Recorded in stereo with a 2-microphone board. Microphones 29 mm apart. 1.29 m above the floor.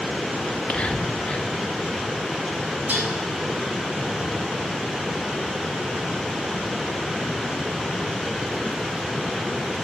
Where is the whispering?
45° left (ahead or behind), 2 m.